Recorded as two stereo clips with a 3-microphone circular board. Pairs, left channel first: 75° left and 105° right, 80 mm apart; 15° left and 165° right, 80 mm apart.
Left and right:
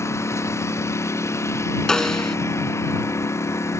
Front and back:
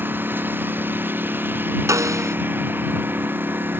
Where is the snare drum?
155° left.